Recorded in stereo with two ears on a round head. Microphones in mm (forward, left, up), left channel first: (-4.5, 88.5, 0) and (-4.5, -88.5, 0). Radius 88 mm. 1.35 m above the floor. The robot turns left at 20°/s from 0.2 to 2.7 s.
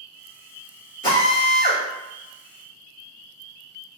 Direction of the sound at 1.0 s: 25° left (ahead or behind).